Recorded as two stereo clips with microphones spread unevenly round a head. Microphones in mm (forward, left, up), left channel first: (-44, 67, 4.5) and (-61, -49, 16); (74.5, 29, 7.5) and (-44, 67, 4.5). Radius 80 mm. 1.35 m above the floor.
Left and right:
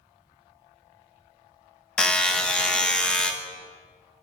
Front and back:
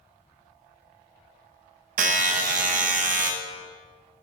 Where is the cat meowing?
No cat meowing in this recording.